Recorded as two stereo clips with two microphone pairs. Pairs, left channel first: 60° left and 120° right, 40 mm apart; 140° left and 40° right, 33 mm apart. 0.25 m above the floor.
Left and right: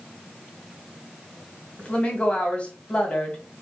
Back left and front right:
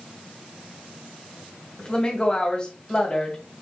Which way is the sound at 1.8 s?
100° left.